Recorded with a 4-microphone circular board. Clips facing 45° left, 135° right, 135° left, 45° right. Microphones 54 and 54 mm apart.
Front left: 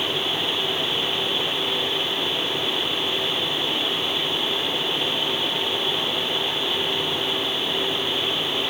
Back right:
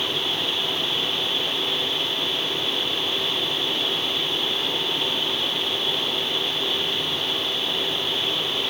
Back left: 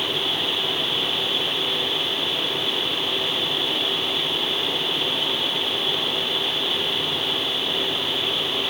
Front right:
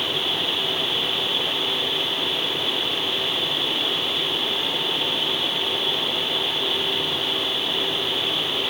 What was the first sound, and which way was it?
Only background noise.